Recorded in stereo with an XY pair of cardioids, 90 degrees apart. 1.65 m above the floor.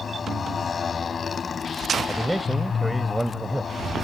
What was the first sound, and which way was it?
A motorcycle, 45° left.